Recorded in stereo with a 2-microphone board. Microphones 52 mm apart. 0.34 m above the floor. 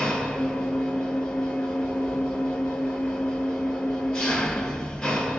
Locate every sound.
0.0 s an engine running: 10° left (ahead or behind), 2 m